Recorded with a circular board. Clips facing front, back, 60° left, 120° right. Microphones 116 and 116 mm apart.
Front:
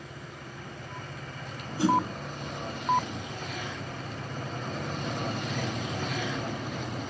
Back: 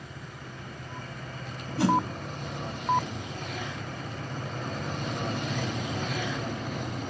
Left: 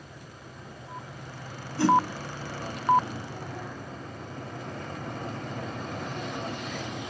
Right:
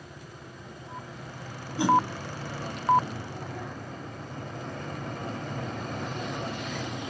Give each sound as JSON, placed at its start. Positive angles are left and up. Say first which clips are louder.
{"t": 1.8, "sound": "a whoosh", "louder": "even, left 1 dB", "azimuth_deg": 165, "distance_m": 1.8}